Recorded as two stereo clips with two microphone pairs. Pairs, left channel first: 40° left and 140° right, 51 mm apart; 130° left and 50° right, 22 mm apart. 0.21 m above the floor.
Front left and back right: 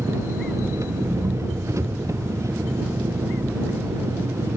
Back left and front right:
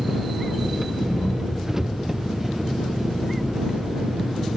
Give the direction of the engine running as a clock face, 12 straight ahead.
4 o'clock.